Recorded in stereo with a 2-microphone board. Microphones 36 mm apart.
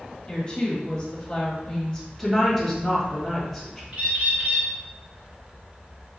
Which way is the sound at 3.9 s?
40° right (ahead or behind).